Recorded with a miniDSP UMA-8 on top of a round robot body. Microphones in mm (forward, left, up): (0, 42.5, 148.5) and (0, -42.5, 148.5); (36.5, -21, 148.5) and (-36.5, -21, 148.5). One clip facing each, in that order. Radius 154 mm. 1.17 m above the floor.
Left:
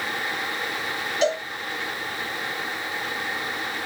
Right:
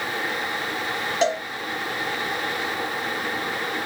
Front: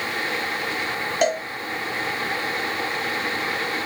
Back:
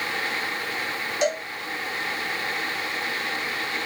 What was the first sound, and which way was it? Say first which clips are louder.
A cowbell: even, front 3 dB; 40° right.